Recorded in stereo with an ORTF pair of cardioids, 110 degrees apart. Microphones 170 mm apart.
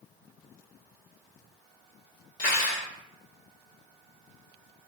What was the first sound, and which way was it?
Cutlery clinking, 45° left.